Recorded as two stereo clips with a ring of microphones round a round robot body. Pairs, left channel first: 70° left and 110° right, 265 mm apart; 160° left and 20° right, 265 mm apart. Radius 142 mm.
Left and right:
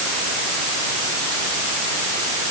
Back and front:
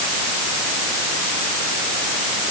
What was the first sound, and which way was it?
Only background noise.